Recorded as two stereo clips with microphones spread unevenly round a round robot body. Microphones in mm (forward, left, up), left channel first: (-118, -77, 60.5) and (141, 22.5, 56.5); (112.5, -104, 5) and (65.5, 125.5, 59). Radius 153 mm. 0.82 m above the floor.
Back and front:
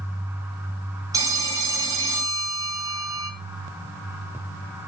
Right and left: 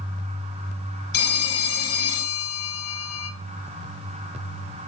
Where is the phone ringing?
60° right, 3.5 m.